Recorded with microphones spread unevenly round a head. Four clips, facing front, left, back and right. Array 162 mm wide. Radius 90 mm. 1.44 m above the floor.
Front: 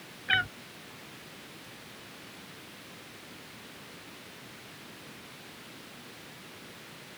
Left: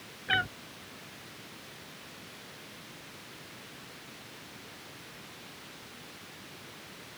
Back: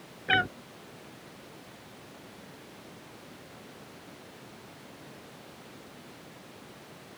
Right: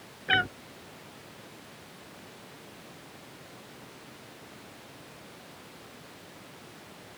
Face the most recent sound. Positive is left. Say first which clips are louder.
# right 3 dB, back 3 dB
turn(degrees=-150)